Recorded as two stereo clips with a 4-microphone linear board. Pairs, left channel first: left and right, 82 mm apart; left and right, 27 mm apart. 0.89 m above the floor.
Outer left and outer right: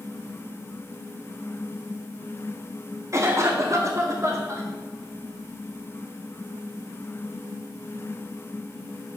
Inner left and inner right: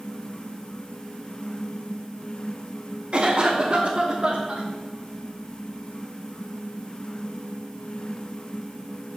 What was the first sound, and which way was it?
A cough, 40° right (ahead or behind).